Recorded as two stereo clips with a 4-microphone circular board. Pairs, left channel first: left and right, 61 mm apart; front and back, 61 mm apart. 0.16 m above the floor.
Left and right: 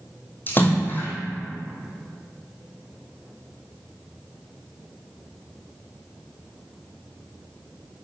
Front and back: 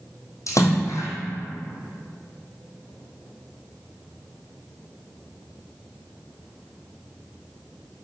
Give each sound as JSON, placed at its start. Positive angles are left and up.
{"t": 0.5, "sound": "a splash", "azimuth_deg": 35, "distance_m": 1.7}